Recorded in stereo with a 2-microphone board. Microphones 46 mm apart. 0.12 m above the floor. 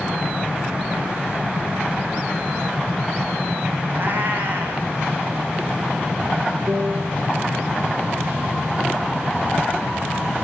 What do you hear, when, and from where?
3.9 s a cat meowing: 45° right (ahead or behind), 4.5 m
6.7 s a piano: 55° right (ahead or behind), 4.5 m